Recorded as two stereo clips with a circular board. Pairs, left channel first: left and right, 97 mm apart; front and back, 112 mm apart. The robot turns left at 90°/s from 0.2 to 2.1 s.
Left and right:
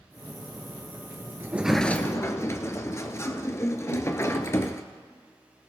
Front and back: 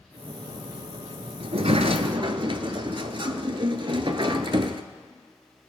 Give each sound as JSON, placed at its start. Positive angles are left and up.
{"t": 1.4, "sound": "a sliding door", "azimuth_deg": -150, "distance_m": 0.8}